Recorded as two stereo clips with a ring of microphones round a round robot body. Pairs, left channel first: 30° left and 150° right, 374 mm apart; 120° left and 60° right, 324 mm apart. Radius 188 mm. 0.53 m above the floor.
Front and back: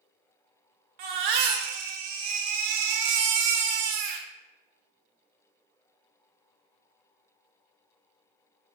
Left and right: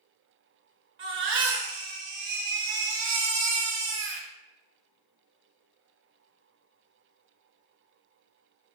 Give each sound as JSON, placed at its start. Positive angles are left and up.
{"t": 1.0, "sound": "a baby crying", "azimuth_deg": -120, "distance_m": 0.6}